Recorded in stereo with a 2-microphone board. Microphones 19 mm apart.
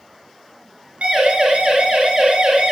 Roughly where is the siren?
Right.